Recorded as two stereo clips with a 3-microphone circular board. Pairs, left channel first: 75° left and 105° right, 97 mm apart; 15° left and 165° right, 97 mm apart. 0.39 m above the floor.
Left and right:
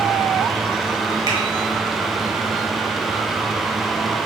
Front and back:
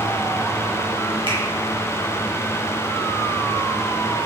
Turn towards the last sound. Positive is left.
turn(degrees=-150)